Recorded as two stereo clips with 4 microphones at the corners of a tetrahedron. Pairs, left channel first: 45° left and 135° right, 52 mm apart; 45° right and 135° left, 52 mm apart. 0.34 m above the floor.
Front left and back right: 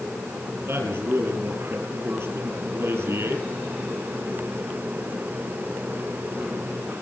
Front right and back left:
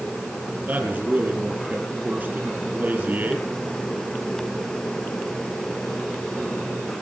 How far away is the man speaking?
About 4.5 m.